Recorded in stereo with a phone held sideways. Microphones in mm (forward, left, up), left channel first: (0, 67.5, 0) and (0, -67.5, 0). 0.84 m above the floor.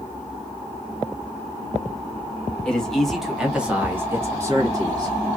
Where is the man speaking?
5° left (ahead or behind), 1.2 m; by 5.4 s 30° right (ahead or behind), 1.2 m.